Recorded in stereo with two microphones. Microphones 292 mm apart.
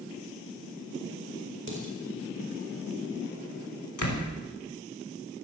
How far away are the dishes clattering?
About 4.5 m.